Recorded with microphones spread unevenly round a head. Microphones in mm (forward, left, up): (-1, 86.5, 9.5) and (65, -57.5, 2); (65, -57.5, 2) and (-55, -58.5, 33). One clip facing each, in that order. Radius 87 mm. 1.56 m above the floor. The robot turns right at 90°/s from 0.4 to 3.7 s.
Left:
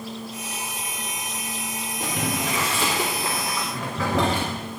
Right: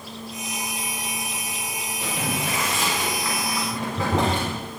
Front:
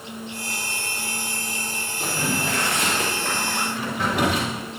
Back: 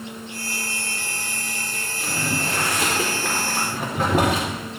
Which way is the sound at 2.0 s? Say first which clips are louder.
Left 1 dB, front 1 dB; 70° left.